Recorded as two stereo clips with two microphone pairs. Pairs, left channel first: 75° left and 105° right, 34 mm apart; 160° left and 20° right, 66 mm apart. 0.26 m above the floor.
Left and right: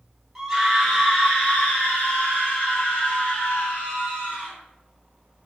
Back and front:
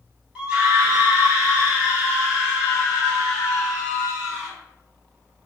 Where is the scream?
35° right, 1.2 m; by 4.5 s 55° left, 3.5 m.